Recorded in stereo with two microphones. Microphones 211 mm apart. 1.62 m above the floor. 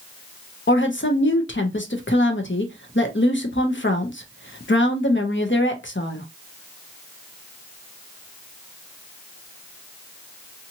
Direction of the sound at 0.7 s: 65° left (ahead or behind).